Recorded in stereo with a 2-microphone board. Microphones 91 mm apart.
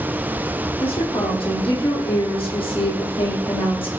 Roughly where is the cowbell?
No cowbell in this recording.